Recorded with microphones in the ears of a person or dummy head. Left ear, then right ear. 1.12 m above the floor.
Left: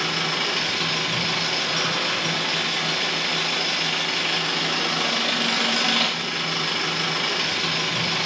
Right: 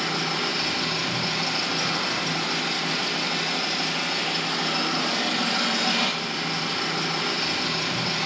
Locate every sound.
0.0 s an engine running: 40° left (ahead or behind), 0.7 m